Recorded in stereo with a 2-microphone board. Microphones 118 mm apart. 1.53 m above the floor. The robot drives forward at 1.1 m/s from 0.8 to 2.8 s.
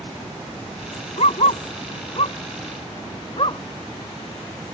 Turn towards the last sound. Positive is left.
turn(degrees=50)  # may be behind; listen again after turning